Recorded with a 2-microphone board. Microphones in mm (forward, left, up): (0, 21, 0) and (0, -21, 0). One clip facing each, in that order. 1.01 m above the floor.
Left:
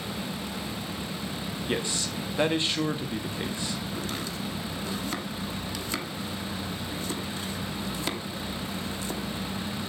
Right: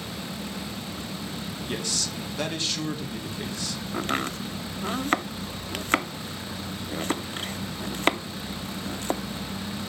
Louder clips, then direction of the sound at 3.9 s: Right 5 dB; 50° right (ahead or behind).